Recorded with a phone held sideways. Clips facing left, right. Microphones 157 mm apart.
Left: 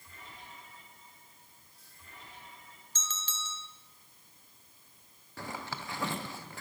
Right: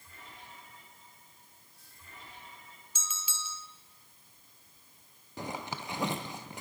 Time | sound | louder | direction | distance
3.0 | a bell | left 1 dB | 10° right (ahead or behind) | 0.5 m
5.4 | a zipper | right 2 dB | 20° right (ahead or behind) | 0.7 m